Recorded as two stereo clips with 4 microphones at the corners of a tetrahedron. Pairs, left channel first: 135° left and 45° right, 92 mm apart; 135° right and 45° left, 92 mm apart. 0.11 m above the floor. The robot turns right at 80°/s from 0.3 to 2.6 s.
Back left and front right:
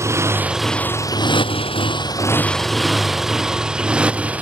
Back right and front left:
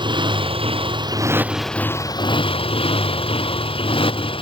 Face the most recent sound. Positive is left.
turn(degrees=-120)